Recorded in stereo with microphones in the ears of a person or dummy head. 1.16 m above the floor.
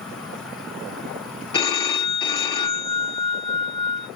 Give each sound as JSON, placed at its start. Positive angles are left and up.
{"t": 0.0, "sound": "an insect", "side_deg": 0, "distance_m": 1.4}
{"t": 1.5, "sound": "a phone ringing", "side_deg": 30, "distance_m": 1.0}